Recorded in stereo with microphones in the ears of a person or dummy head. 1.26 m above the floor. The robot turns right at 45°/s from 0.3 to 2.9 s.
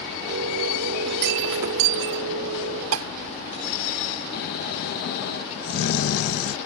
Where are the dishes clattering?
80° right.